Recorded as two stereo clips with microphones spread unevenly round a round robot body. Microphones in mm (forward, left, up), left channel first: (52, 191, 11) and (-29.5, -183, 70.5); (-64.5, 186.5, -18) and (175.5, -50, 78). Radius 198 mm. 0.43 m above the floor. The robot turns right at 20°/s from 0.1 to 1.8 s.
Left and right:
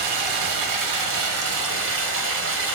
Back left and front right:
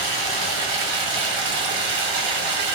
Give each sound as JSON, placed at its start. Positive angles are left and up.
{"t": 0.0, "sound": "running water", "azimuth_deg": -75, "distance_m": 0.9}